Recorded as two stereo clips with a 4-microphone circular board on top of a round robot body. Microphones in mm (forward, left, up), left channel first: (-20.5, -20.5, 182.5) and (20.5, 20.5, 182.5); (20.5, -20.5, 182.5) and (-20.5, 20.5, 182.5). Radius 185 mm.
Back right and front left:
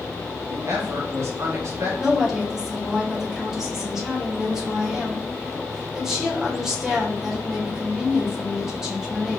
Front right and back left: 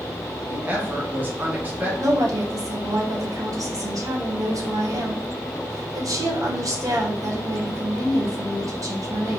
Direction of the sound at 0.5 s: 80° left.